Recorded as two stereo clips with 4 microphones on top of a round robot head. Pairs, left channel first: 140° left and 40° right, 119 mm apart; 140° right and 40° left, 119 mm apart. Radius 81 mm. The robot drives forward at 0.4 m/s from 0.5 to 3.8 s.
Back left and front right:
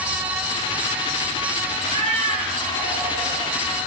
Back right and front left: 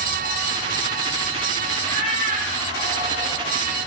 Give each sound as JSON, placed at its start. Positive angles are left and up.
{"t": 1.8, "sound": "a cat meowing", "azimuth_deg": 5, "distance_m": 2.5}